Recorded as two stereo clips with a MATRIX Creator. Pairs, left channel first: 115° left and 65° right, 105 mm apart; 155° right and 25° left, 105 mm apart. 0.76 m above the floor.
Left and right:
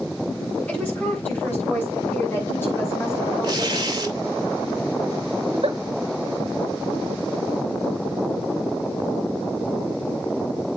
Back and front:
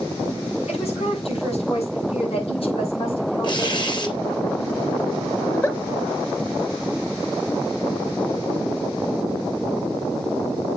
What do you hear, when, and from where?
0.7 s a woman speaking: 175° right, 7.5 m; by 4.2 s 175° left, 5 m
3.4 s tearing paper: 115° right, 2.5 m
5.5 s a giggle: 90° right, 1.2 m